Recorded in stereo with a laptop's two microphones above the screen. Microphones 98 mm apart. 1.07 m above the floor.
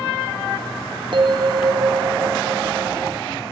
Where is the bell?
55° right (ahead or behind), 0.7 m.